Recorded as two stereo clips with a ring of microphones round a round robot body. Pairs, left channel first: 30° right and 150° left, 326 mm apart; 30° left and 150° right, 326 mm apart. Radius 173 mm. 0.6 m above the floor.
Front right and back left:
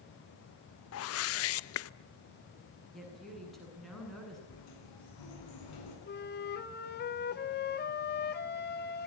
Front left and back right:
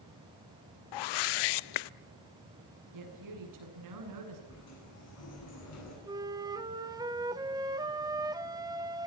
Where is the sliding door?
15° right, 8.5 m.